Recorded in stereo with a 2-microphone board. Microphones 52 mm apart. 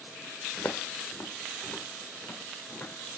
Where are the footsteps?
60° left (ahead or behind), 0.7 m; by 3.2 s 20° left (ahead or behind), 2.5 m.